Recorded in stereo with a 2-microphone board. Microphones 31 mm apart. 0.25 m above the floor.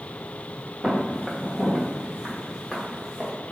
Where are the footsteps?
20° right (ahead or behind), 1.2 m; by 3.3 s 10° right (ahead or behind), 3 m.